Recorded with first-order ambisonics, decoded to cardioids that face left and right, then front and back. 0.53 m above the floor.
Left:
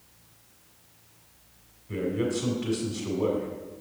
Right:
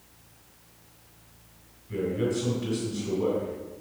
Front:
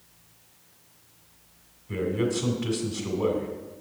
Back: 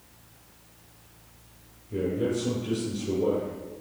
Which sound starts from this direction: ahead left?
A man speaking, at 1.9 s.